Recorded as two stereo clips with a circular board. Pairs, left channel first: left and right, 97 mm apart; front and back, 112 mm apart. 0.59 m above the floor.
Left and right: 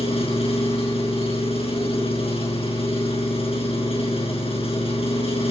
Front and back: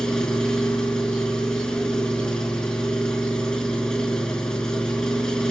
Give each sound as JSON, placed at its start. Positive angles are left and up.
{"t": 0.0, "sound": "an engine running", "azimuth_deg": 85, "distance_m": 5.0}